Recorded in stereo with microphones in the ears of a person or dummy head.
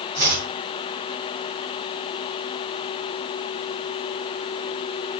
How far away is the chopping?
About 5.5 m.